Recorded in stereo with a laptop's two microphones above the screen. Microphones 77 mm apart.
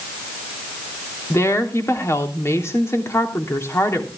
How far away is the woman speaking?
About 3 m.